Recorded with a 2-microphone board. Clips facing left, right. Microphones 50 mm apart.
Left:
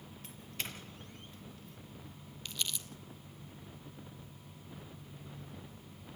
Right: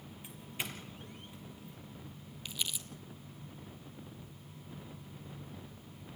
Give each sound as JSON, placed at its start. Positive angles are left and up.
{"t": 0.2, "sound": "a doorbell", "side_deg": -15, "distance_m": 4.5}
{"t": 2.5, "sound": "crumpling", "side_deg": -10, "distance_m": 1.7}